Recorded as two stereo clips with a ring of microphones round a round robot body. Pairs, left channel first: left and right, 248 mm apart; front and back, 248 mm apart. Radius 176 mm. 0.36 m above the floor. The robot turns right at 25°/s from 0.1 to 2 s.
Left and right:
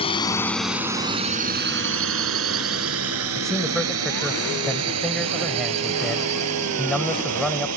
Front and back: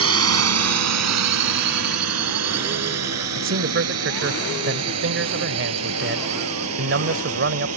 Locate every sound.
0.0 s a drone: 165° left; by 7.8 s 130° right
3.4 s a man speaking: straight behind